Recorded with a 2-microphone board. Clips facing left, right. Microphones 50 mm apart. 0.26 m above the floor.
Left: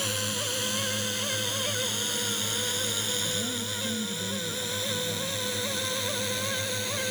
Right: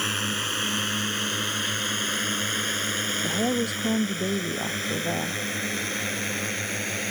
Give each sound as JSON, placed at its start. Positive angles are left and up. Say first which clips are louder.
{"t": 0.0, "sound": "a drone", "louder": "right 4 dB", "side_deg": -40}
{"t": 3.2, "sound": "a woman speaking", "louder": "right 7 dB", "side_deg": -65}